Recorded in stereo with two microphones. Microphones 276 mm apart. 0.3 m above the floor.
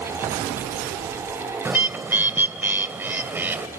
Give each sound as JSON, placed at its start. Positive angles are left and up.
{"t": 1.6, "sound": "a bird", "side_deg": -5, "distance_m": 1.6}